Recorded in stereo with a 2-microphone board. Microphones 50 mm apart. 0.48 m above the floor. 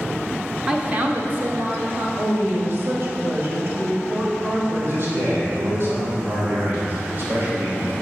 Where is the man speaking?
50° right (ahead or behind), 2.5 m.